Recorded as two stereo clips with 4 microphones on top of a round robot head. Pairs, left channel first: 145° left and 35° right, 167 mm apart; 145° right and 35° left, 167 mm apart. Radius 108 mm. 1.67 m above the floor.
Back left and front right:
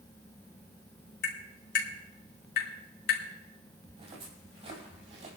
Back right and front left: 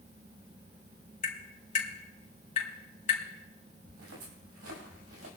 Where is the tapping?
165° left, 5 m.